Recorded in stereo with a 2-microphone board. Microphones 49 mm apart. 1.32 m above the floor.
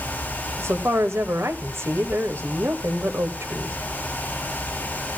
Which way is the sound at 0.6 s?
60° right (ahead or behind).